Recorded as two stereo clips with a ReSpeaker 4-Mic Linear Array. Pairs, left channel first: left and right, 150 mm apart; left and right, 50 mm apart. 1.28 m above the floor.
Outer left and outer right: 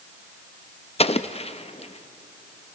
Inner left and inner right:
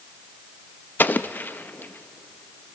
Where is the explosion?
40° left (ahead or behind), 0.6 m.